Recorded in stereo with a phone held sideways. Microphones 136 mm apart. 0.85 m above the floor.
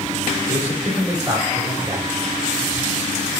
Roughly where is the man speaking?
Centre.